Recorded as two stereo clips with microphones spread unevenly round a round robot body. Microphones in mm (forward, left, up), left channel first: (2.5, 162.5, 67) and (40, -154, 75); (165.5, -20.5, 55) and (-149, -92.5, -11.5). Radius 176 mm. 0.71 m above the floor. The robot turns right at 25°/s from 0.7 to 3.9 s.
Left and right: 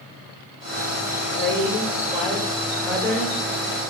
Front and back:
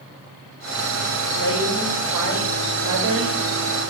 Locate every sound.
1.3 s a woman speaking: 140° left, 3 m; by 3.4 s 170° right, 3 m